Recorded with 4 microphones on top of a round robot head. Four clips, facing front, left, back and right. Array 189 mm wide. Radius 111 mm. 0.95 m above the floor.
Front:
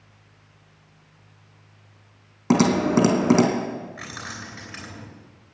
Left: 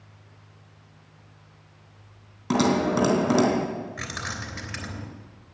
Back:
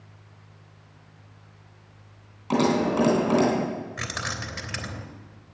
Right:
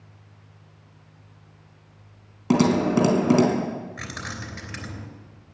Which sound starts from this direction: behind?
Keys jangling, at 4.0 s.